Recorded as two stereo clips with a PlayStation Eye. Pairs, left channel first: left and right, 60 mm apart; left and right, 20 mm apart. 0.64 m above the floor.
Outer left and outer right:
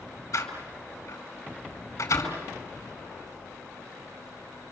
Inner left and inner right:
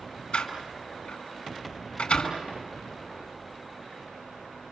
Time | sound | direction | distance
0.3 | a door slam | 70° left (ahead or behind) | 5 m